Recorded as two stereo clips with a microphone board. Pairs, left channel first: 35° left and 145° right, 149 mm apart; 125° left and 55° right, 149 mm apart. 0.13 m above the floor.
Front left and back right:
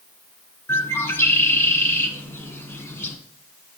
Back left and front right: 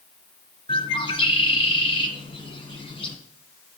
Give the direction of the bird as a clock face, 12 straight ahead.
9 o'clock.